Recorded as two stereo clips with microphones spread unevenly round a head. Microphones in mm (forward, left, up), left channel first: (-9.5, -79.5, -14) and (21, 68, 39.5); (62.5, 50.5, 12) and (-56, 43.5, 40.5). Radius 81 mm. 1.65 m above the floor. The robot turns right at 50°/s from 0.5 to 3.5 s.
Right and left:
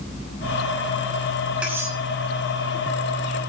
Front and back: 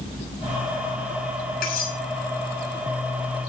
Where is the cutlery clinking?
Straight ahead, 6.5 m; by 2.0 s 15° left, 6.5 m.